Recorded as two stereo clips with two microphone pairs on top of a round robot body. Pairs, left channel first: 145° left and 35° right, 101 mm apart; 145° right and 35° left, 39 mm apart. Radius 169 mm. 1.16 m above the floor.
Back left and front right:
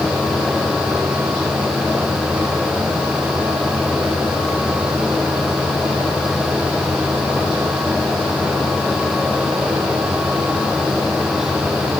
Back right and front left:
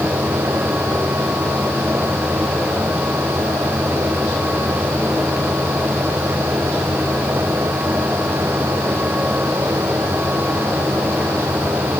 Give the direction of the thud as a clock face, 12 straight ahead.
No thud in this recording.